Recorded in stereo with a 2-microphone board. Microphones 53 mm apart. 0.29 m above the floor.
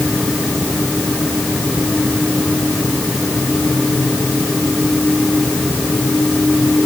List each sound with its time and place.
Only background noise.